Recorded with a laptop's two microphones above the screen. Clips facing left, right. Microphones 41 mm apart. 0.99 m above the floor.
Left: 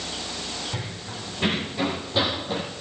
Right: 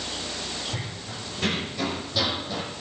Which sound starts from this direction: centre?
Running footsteps, at 0.7 s.